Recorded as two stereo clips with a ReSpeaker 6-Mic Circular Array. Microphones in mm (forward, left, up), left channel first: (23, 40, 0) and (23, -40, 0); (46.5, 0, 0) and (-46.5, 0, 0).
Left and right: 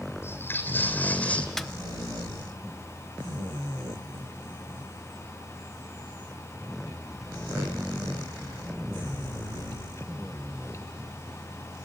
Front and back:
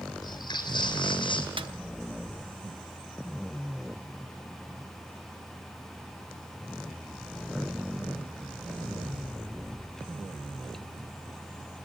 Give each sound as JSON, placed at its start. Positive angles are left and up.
{"t": 0.2, "sound": "footsteps", "azimuth_deg": 35, "distance_m": 2.5}
{"t": 1.6, "sound": "a snare drum", "azimuth_deg": 175, "distance_m": 0.7}